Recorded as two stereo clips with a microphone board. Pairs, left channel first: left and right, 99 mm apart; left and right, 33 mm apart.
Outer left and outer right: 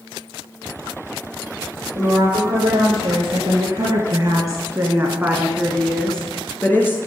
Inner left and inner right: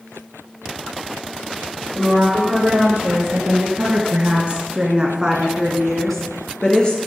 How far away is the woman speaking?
About 3 m.